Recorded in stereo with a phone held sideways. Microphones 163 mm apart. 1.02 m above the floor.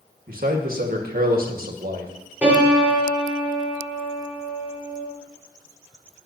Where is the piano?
10° right (ahead or behind), 4.5 m.